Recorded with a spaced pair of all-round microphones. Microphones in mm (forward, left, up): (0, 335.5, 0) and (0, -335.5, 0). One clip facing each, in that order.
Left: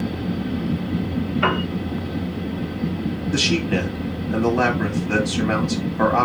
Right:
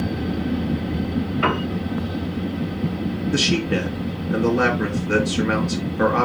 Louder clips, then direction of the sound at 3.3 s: Even; 5° left (ahead or behind).